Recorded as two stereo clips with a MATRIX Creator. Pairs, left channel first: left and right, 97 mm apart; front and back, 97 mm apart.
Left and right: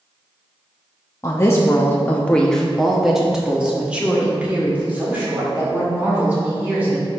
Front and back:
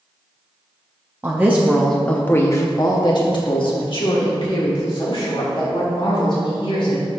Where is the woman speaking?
130° left, 0.7 m; by 7.0 s 20° right, 3 m.